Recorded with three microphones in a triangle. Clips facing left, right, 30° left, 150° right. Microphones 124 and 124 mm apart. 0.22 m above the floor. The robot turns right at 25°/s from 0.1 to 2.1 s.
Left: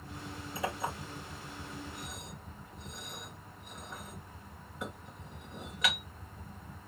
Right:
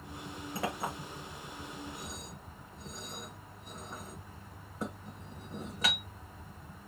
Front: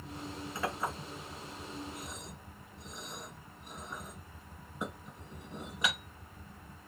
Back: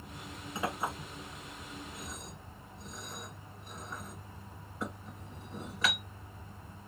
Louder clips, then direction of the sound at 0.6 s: Even, back 1 dB; 80° right.